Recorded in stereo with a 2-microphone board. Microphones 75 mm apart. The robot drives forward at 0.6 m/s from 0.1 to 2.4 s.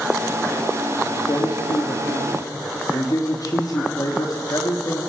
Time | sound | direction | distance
1.2 | a man speaking | 65° left (ahead or behind) | 2.5 m